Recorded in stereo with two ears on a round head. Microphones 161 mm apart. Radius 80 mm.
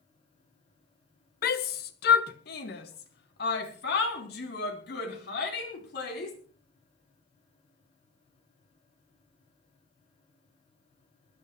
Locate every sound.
1.4 s a shout: 55° left (ahead or behind), 1.1 m; by 6.3 s 65° left (ahead or behind), 5 m